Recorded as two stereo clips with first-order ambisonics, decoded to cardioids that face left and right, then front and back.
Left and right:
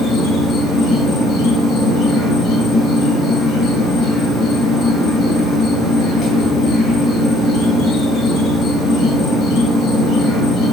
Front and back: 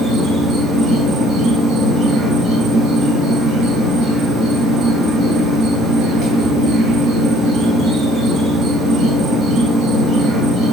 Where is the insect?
135° left, 0.8 m.